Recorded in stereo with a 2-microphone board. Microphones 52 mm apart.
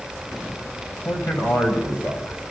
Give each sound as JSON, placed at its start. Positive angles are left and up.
{"t": 1.1, "sound": "a man speaking", "side_deg": 55, "distance_m": 8.0}